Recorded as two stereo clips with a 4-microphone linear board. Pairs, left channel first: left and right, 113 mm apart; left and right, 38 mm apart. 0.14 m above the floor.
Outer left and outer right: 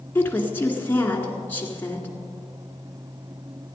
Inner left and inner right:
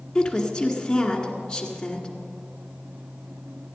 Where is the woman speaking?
20° left (ahead or behind), 1.9 m.